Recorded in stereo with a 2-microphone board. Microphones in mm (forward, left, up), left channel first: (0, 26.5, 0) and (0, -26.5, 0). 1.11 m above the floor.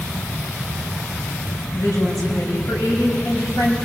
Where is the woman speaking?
85° left, 6 m.